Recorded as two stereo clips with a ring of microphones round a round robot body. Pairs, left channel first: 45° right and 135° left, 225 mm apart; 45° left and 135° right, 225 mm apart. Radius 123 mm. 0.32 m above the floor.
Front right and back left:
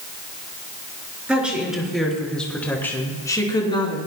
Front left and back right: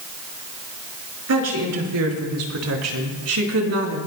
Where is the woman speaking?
140° right, 5 m; by 4.0 s 110° right, 3.5 m.